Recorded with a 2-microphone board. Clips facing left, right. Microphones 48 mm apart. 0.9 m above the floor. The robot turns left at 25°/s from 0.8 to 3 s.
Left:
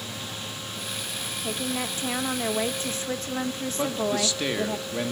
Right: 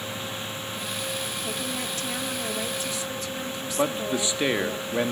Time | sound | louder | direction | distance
1.4 | a woman speaking | left 1 dB | 160° left | 1.1 m
3.8 | a man speaking | right 1 dB | 20° right (ahead or behind) | 1.5 m